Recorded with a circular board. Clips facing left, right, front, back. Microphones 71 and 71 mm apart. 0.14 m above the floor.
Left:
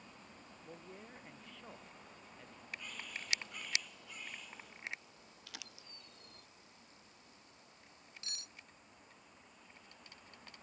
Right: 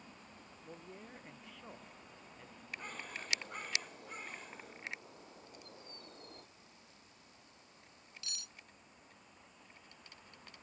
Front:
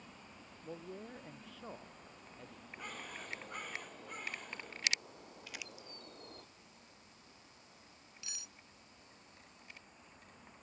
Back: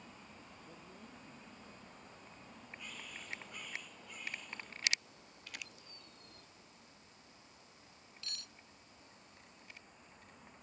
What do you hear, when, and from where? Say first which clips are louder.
0.6 s a man speaking: right 1 dB, front 12 dB; 5° right
2.8 s a bird: right 4 dB, front 6 dB; 40° right
5.5 s crumpling: right 1 dB, front 1 dB; 85° left
8.2 s cutlery clinking: right 1 dB, back 3 dB; 65° left